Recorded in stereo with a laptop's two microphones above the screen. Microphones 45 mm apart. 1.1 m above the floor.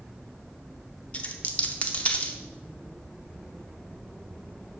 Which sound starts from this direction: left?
A dropped coin, at 1.1 s.